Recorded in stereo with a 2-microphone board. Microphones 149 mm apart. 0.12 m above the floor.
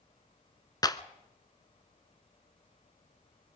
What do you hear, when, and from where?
0.8 s a clap: 25° left (ahead or behind), 1.1 m